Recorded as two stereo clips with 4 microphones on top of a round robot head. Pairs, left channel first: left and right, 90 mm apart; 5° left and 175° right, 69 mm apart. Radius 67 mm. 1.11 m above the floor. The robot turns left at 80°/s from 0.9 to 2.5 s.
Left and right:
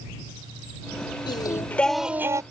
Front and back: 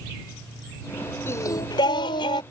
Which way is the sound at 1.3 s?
55° left.